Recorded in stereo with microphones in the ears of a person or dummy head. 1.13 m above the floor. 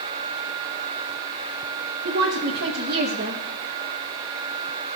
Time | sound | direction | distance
2.0 | a woman speaking | 50° right (ahead or behind) | 1.3 m